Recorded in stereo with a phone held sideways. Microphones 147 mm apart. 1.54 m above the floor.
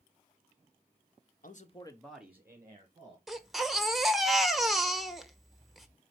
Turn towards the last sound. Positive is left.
turn(degrees=0)  # may be behind; listen again after turning